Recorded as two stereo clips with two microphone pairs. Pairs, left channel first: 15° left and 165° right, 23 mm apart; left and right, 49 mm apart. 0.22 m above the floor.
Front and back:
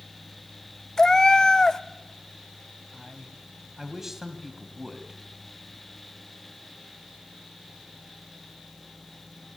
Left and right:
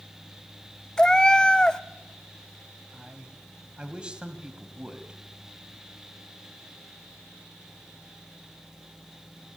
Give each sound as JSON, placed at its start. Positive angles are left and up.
{"t": 1.0, "sound": "a cat meowing", "azimuth_deg": 35, "distance_m": 0.5}
{"t": 2.9, "sound": "a man speaking", "azimuth_deg": -120, "distance_m": 1.5}